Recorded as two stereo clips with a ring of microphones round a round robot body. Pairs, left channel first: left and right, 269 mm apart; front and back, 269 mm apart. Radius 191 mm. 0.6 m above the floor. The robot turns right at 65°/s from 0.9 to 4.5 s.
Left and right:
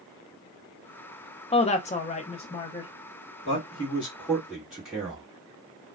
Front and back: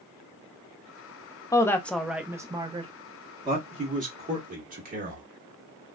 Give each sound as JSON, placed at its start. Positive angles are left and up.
{"t": 1.5, "sound": "a woman speaking", "azimuth_deg": 60, "distance_m": 0.6}
{"t": 3.5, "sound": "a man speaking", "azimuth_deg": 115, "distance_m": 1.2}